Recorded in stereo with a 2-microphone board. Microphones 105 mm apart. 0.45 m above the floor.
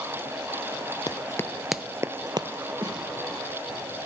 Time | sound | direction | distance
1.1 | running footsteps | 45° left (ahead or behind) | 0.6 m
2.8 | a snare drum | 50° right (ahead or behind) | 4 m